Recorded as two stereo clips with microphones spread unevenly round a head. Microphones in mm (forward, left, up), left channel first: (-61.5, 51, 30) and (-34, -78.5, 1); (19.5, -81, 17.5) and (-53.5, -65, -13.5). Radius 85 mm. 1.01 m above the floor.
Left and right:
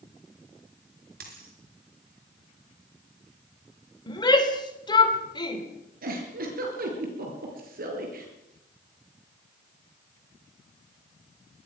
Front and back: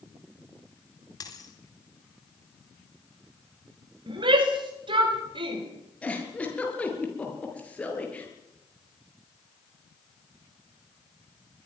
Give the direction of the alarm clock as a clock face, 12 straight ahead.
I don't hear an alarm clock.